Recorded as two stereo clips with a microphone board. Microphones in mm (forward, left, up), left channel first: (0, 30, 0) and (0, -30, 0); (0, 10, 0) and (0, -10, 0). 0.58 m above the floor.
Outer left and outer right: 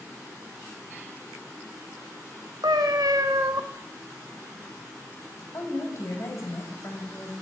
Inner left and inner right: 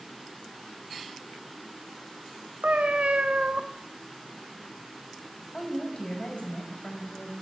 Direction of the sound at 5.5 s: 50° left (ahead or behind).